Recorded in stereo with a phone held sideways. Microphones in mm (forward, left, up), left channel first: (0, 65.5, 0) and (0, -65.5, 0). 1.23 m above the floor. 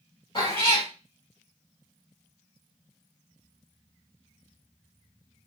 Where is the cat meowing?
40° left (ahead or behind), 1.6 m.